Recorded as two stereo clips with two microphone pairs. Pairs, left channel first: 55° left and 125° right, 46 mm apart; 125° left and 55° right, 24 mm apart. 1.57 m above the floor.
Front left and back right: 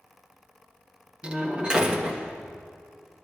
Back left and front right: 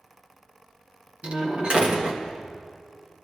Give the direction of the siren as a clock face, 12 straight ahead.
I don't hear a siren.